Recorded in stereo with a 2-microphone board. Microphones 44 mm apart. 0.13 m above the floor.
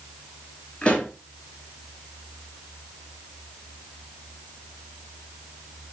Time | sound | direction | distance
0.8 | a pop | 30° left (ahead or behind) | 0.9 m